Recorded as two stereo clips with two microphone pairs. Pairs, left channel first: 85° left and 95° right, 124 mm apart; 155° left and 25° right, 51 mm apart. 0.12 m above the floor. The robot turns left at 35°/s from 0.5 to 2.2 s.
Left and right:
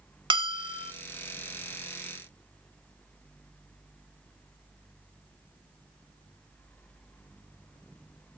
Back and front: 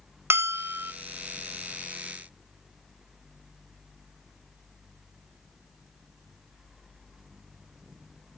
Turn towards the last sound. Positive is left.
turn(degrees=-110)